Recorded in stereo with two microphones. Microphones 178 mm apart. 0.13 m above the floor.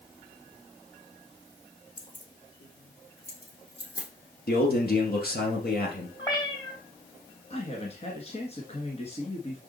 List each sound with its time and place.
2.0 s keys jangling: 30° left (ahead or behind), 1.9 m; by 4.1 s 70° left (ahead or behind), 4 m
4.5 s a man speaking: 60° left (ahead or behind), 2.5 m
6.2 s a cat meowing: 25° left (ahead or behind), 2.5 m
7.5 s a man speaking: 35° left (ahead or behind), 1.6 m